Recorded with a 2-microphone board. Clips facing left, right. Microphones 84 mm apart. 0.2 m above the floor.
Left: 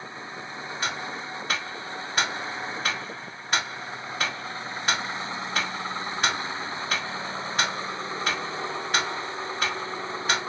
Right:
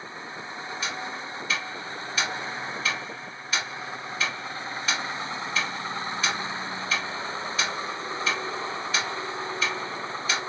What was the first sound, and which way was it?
Ticking, 55° left (ahead or behind).